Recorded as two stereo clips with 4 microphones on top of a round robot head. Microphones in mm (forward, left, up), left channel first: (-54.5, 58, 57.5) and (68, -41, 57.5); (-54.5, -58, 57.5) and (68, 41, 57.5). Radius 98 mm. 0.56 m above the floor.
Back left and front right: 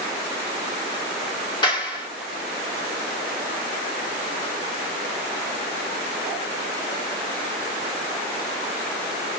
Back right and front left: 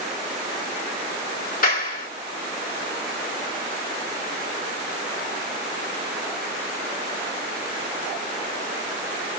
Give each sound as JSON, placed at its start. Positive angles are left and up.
{"t": 1.6, "sound": "a clap", "azimuth_deg": -160, "distance_m": 1.3}